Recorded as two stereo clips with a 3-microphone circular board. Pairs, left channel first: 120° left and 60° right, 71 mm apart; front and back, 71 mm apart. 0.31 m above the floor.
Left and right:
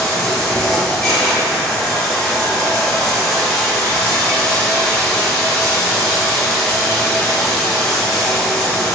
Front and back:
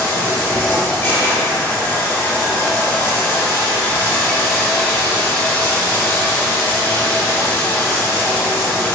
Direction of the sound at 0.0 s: 45° left.